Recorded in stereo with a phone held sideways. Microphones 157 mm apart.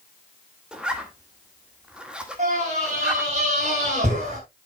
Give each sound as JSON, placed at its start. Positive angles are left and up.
{"t": 0.7, "sound": "a zipper", "side_deg": -5, "distance_m": 1.8}
{"t": 2.4, "sound": "a scream", "side_deg": -50, "distance_m": 7.0}